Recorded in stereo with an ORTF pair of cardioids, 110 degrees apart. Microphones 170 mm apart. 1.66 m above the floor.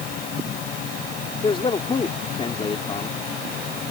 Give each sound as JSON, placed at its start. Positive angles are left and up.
{"t": 0.0, "sound": "a fan", "azimuth_deg": 65}
{"t": 1.4, "sound": "a man speaking", "azimuth_deg": 30}